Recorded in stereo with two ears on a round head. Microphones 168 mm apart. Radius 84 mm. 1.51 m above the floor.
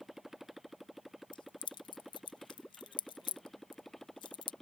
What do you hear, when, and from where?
0.0 s a motorcycle: centre (ahead or behind)
1.3 s keys jangling: 25° left (ahead or behind)